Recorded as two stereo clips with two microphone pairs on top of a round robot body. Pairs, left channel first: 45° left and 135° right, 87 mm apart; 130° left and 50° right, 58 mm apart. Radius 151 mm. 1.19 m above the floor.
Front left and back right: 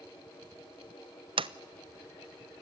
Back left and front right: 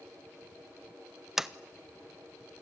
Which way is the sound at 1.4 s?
130° right.